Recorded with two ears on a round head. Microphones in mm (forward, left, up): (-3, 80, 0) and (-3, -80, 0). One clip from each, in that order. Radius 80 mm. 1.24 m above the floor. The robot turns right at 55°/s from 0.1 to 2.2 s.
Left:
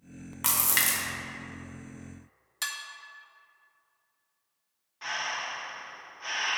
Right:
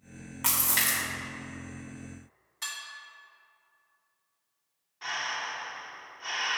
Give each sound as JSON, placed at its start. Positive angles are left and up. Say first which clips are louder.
{"t": 0.4, "sound": "a splash", "louder": "left 1 dB", "azimuth_deg": 15, "distance_m": 1.1}
{"t": 2.6, "sound": "dishes clattering", "louder": "left 3 dB", "side_deg": 70, "distance_m": 0.9}
{"t": 5.0, "sound": "breathing", "louder": "even", "side_deg": 5, "distance_m": 0.6}